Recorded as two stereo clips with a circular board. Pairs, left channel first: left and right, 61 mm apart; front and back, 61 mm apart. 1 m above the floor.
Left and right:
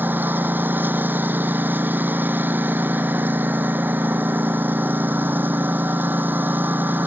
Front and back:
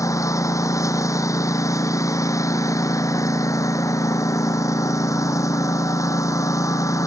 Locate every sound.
0.0 s a lawn mower: 30° right